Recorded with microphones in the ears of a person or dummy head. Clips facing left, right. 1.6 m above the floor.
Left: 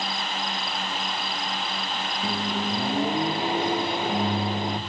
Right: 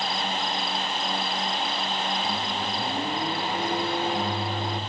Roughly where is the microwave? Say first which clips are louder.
Left 2 dB; left.